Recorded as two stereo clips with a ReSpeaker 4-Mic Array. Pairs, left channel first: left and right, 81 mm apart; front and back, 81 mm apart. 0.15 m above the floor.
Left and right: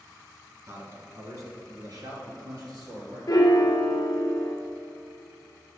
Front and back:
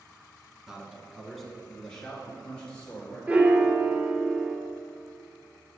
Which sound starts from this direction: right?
A man speaking, at 0.7 s.